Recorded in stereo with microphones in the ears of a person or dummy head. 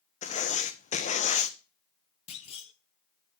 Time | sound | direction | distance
0.2 | writing | 35° left (ahead or behind) | 0.7 m
2.3 | a clunk | 30° left (ahead or behind) | 1.0 m